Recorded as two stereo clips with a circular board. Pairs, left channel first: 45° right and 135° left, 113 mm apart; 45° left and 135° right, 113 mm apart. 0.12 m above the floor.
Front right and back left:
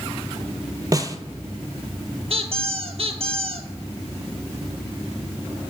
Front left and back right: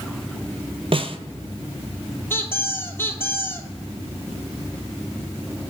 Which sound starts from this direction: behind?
A snare drum, at 0.9 s.